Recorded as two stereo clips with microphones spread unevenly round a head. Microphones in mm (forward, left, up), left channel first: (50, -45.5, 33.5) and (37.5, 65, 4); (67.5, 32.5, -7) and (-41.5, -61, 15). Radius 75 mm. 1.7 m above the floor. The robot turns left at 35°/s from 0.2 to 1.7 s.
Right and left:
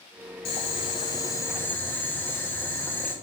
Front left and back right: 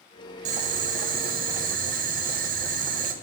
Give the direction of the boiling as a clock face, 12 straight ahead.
4 o'clock.